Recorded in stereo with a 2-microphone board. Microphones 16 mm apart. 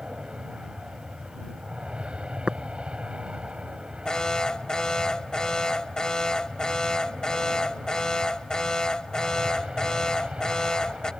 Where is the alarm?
55° left (ahead or behind).